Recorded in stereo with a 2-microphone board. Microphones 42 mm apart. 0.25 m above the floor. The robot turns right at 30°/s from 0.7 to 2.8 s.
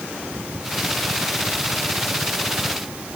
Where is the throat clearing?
No throat clearing in this recording.